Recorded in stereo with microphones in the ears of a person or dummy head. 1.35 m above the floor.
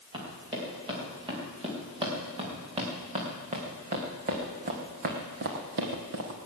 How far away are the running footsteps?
About 6.5 m.